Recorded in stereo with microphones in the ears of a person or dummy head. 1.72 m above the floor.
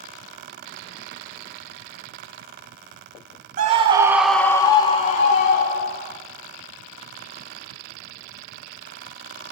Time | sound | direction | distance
3.6 | a scream | 45° right (ahead or behind) | 0.8 m